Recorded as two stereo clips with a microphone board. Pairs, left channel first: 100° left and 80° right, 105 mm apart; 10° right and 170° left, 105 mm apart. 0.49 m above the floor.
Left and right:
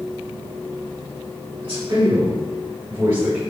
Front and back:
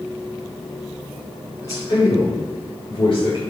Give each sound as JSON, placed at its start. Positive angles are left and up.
{"t": 1.6, "sound": "a man speaking", "azimuth_deg": -65, "distance_m": 2.5}